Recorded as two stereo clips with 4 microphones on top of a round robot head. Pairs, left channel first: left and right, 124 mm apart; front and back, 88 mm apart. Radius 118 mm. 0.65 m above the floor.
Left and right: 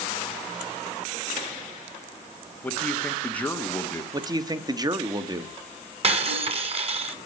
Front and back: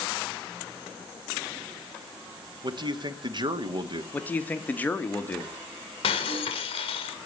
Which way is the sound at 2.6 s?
165° left.